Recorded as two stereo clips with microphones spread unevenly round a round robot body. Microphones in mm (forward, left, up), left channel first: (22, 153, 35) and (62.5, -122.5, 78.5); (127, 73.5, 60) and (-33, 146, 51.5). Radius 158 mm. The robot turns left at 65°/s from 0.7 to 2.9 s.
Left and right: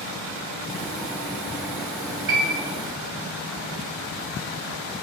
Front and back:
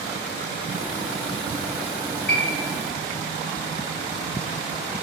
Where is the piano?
40° right, 2.5 m; by 2.6 s 55° right, 2.5 m.